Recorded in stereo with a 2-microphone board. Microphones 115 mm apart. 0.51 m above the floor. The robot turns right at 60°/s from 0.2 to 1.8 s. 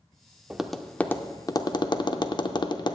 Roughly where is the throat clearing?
No throat clearing in this recording.